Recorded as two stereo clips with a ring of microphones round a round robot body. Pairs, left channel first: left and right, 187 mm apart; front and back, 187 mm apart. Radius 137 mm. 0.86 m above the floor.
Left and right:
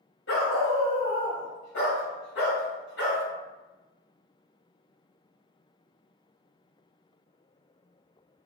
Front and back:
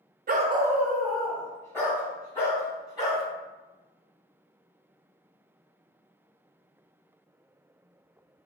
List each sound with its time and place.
0.3 s a dog barking: 140° left, 0.6 m; by 3.2 s 70° left, 3.5 m